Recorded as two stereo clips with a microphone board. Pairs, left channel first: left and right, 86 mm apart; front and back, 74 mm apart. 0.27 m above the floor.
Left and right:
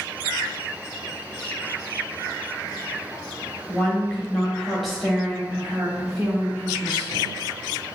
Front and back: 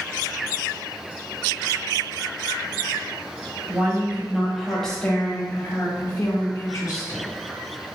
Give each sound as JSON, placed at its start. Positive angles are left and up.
{"t": 3.7, "sound": "a woman speaking", "azimuth_deg": 155, "distance_m": 1.4}